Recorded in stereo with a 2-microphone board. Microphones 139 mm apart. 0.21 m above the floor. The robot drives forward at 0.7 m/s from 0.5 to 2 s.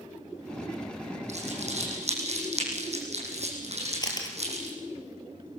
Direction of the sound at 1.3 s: 55° right (ahead or behind).